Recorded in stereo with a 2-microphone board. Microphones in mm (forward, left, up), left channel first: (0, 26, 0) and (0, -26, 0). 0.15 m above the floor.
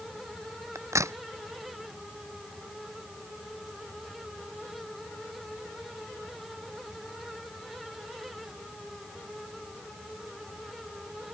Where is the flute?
I don't hear a flute.